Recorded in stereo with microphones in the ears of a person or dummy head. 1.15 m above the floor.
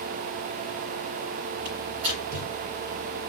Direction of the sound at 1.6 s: 60° right (ahead or behind).